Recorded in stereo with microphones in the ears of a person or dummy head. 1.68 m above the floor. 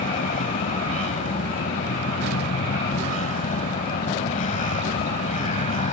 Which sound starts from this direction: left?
A vehicle, at 0.0 s.